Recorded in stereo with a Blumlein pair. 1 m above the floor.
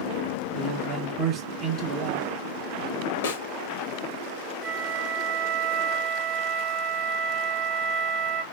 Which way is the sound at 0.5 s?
35° right.